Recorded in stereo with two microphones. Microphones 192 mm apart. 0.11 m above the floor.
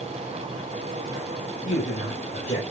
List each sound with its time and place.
1.6 s a man speaking: 40° left (ahead or behind), 9.5 m